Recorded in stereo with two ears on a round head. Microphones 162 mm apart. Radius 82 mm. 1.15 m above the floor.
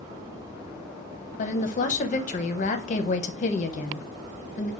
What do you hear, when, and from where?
1.4 s a woman speaking: 45° left (ahead or behind), 0.8 m